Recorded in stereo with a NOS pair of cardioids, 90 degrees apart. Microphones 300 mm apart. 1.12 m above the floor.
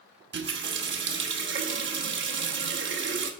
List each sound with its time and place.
0.3 s a running tap: 40° right, 0.9 m